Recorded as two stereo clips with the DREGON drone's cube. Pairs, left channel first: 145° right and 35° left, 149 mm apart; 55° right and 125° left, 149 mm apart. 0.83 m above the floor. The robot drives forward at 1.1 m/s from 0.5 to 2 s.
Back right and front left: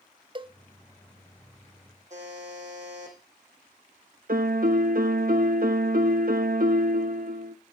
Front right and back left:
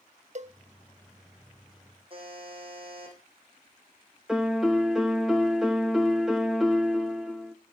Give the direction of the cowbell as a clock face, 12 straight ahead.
9 o'clock.